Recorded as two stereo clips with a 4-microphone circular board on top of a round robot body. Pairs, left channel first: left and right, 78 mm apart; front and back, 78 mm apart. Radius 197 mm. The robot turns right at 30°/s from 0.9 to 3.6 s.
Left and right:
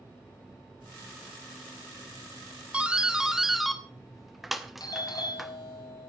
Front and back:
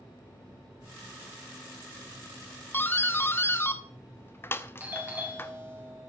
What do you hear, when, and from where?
2.7 s a doorbell: 30° right, 1.6 m; by 5.5 s 5° right, 1.6 m
4.8 s a doorbell: 115° left, 3.5 m